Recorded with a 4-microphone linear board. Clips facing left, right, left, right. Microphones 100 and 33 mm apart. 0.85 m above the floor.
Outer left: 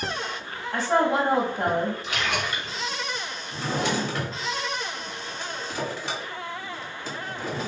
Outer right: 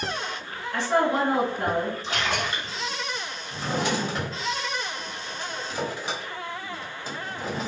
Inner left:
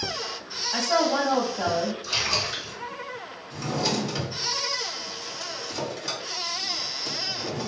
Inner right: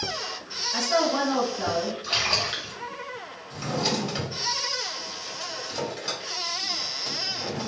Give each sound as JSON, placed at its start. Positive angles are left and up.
{"t": 0.7, "sound": "a woman speaking", "side_deg": 35, "distance_m": 0.9}
{"t": 2.0, "sound": "a splash", "side_deg": -35, "distance_m": 0.9}
{"t": 3.5, "sound": "a drawer", "side_deg": -15, "distance_m": 1.6}